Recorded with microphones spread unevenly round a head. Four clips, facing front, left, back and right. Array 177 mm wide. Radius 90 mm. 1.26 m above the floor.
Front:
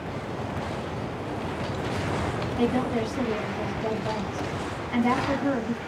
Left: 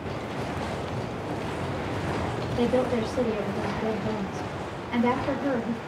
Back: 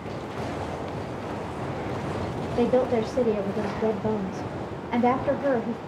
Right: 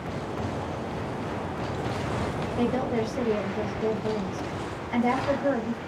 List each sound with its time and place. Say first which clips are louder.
2.6 s a woman speaking: left 2 dB, back 4 dB; straight behind, 1.0 m